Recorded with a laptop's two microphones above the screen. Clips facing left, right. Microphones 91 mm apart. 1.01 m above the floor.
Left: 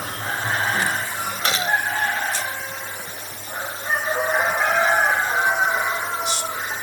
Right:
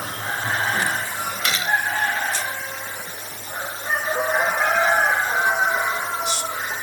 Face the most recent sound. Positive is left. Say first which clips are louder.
# left 1 dB
turn(degrees=35)  # may be behind; listen again after turning